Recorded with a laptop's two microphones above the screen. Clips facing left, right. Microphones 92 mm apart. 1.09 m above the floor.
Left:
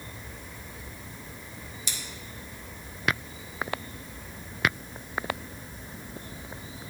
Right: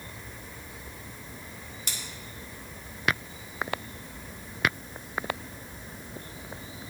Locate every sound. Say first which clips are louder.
1.9 s scissors: even; 55° right (ahead or behind), 1.0 m